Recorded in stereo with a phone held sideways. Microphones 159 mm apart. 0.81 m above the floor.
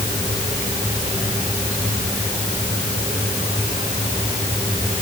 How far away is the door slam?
No door slam in this recording.